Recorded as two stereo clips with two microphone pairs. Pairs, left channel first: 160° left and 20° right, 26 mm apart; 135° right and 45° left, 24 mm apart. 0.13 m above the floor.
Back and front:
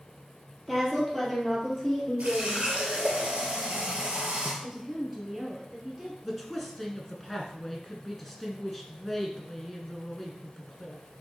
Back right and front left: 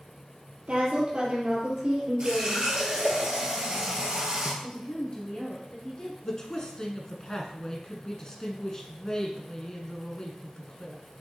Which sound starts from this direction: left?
A woman speaking, at 0.7 s.